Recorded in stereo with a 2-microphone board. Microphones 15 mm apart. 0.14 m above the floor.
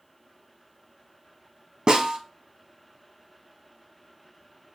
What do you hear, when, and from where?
1.9 s a snare drum: 65° right (ahead or behind), 1.9 m